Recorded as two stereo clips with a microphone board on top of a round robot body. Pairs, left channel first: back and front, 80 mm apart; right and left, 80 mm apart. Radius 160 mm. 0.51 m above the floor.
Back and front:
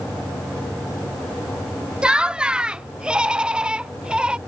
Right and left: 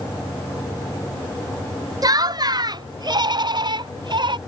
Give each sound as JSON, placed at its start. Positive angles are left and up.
{"t": 2.0, "sound": "laughter", "azimuth_deg": 75}